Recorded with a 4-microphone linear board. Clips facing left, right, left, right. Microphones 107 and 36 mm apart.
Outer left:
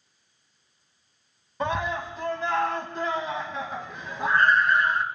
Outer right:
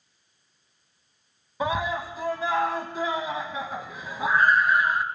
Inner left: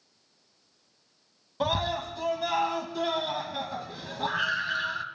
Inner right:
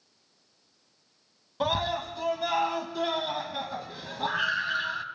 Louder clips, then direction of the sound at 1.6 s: Outer right 1 dB, even; 5° right (ahead or behind).